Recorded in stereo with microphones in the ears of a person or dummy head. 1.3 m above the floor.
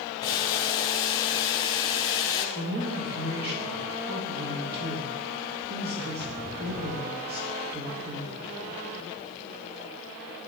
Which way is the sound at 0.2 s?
20° left (ahead or behind).